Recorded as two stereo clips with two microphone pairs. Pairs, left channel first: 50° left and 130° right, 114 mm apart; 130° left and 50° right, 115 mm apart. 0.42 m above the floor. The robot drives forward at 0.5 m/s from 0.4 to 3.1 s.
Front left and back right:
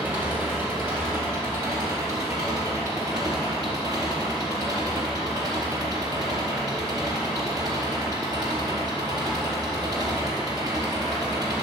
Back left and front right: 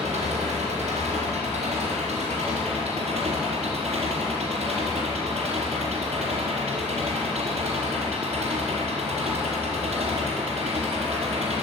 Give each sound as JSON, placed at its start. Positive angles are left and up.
{"t": 0.0, "sound": "an engine running", "azimuth_deg": -55, "distance_m": 4.5}